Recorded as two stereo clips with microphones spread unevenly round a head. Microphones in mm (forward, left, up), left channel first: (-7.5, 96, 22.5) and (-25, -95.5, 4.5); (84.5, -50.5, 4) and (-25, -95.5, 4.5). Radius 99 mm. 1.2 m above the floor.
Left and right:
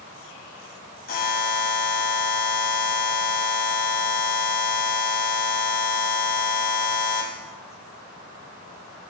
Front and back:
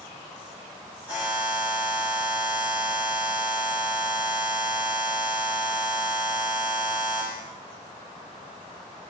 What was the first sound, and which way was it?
A buzzer, 125° left.